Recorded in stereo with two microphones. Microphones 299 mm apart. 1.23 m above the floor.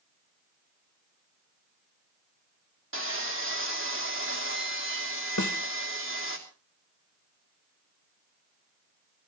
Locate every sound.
2.9 s sawing: 45° right (ahead or behind), 3 m
5.4 s a snare drum: 70° left (ahead or behind), 1.3 m